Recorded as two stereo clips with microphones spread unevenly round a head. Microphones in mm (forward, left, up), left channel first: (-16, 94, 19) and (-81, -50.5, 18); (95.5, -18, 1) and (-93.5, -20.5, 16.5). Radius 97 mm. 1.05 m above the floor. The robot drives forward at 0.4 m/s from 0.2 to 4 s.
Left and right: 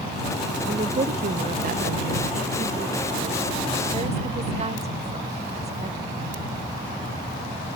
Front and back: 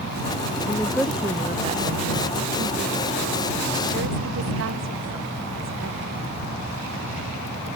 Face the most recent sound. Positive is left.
turn(degrees=-165)